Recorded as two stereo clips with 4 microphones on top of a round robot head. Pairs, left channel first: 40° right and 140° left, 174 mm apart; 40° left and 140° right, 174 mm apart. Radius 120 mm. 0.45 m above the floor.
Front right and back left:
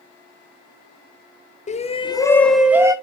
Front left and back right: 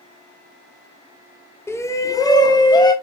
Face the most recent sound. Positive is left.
turn(degrees=85)